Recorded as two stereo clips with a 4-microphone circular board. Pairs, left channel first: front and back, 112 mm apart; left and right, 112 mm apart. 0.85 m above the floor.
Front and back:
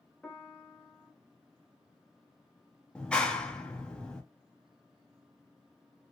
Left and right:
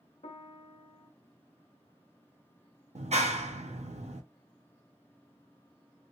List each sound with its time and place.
0.2 s a piano: 80° left, 0.6 m
3.0 s a clap: 85° right, 0.6 m